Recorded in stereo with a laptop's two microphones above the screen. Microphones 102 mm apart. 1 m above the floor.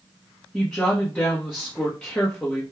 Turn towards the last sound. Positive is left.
turn(degrees=15)  # may be behind; listen again after turning